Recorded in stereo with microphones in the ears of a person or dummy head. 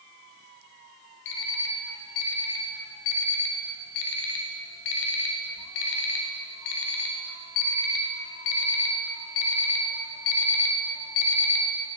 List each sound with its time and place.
1.2 s an alarm clock: 60° left (ahead or behind), 0.8 m